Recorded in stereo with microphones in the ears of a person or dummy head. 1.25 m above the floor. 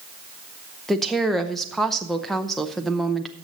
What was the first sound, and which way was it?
A woman speaking, centre (ahead or behind).